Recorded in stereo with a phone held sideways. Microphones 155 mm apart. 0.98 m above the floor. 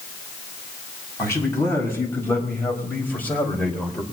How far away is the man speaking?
About 6 m.